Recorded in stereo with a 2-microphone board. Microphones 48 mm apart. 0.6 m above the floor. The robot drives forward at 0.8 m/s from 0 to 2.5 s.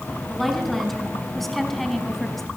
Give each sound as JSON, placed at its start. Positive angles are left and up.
{"t": 0.3, "sound": "a woman speaking", "side_deg": 0, "distance_m": 6.0}